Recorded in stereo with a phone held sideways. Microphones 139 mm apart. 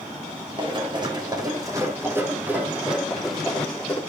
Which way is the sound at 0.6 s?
40° right (ahead or behind).